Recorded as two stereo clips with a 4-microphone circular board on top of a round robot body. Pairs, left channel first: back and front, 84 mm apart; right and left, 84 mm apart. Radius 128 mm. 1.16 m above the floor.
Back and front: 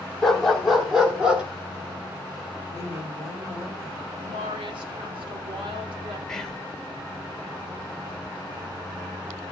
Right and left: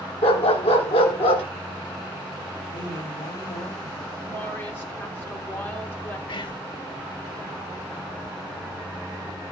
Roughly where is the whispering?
Right.